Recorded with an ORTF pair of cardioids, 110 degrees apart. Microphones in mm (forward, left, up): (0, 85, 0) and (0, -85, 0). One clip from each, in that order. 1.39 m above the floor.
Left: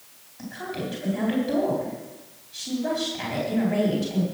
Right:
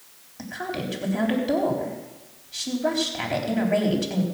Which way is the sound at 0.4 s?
40° right.